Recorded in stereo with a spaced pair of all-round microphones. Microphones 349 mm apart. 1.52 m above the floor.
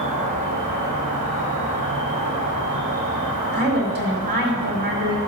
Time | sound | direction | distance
0.0 | an insect | 60° right (ahead or behind) | 1.7 m
3.5 | a woman speaking | 75° right (ahead or behind) | 1.8 m